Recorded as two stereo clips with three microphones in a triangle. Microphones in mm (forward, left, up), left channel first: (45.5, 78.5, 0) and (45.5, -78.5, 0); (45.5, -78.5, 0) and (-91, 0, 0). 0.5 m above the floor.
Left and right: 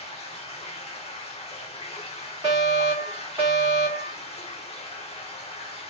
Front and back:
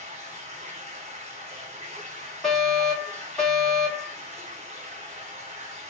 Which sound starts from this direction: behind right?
A fire alarm, at 2.4 s.